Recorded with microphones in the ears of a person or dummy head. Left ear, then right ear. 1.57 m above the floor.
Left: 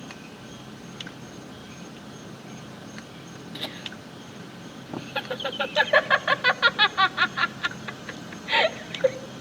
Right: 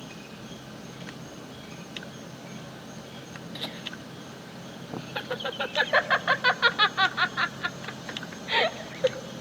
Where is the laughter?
5° left (ahead or behind), 0.7 m.